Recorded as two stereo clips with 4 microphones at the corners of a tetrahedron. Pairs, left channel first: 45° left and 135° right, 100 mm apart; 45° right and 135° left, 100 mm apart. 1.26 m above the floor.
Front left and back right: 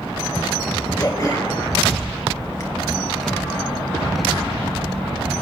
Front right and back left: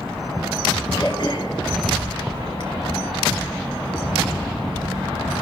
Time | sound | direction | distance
1.0 | throat clearing | 5° right | 2.5 m